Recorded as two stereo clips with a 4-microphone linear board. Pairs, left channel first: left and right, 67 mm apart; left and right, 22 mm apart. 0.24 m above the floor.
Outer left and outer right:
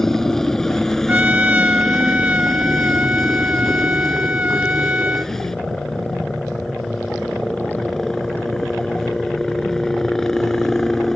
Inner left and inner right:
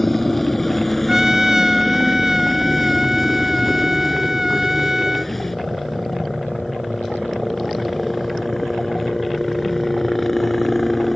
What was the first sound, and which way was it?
A helicopter, 5° left (ahead or behind).